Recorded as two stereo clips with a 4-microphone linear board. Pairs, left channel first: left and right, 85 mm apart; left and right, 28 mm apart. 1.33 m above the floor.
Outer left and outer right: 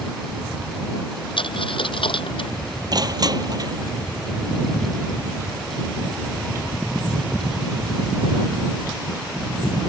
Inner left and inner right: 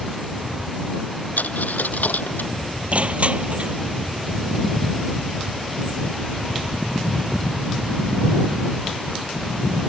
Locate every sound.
1.4 s a dropped coin: 80° left
2.9 s crushing: 50° right (ahead or behind)